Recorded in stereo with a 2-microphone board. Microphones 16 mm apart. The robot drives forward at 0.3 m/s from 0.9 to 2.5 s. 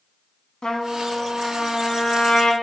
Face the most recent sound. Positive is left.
turn(degrees=70)  # may be behind; listen again after turning